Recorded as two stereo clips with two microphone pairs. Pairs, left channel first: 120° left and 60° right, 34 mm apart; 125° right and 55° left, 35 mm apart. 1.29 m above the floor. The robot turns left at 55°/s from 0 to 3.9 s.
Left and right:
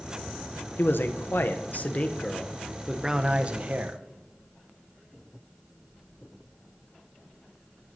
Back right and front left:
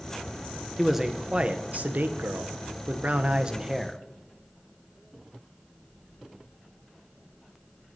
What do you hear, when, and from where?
0.8 s a man speaking: 140° left, 0.9 m; by 4.0 s 30° right, 0.9 m